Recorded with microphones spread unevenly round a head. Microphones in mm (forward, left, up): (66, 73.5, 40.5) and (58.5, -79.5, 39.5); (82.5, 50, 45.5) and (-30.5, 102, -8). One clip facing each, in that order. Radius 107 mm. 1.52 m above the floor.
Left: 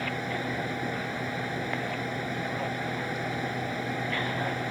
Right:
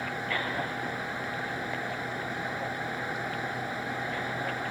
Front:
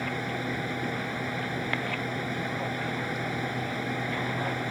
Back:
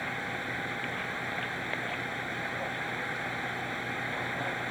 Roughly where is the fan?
Ahead.